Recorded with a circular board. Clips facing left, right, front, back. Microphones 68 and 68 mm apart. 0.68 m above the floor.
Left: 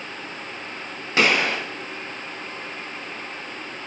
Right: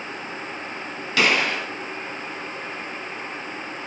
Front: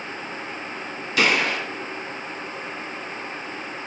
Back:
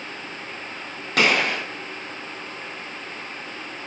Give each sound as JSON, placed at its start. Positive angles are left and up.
{"t": 1.2, "sound": "a gunshot", "azimuth_deg": 150, "distance_m": 2.0}